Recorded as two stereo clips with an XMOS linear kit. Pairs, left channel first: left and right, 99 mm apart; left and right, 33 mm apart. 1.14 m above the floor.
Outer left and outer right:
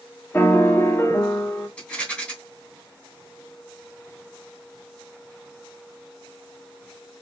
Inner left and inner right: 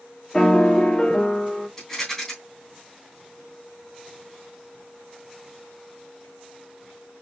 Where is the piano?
20° left (ahead or behind), 1.1 m.